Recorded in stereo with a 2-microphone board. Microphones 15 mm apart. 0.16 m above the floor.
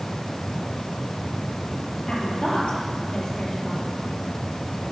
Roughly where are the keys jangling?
No keys jangling in this recording.